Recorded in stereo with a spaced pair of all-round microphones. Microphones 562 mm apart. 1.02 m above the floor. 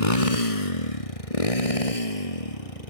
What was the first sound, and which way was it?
A motorcycle, 75° left (ahead or behind).